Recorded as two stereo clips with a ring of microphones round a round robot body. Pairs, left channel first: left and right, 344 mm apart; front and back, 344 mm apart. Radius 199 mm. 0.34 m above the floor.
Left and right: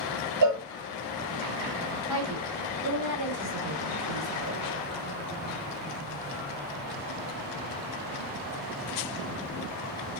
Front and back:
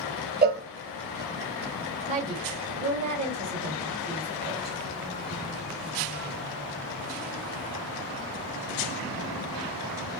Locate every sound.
0.4 s a cowbell: 120° right, 1.0 m
2.1 s a woman speaking: 110° right, 2 m